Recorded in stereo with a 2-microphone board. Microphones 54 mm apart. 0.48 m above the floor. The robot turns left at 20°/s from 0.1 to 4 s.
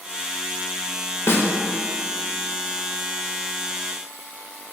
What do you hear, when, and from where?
1.3 s a snare drum: 50° left (ahead or behind), 0.5 m; by 1.5 s 45° left (ahead or behind), 0.5 m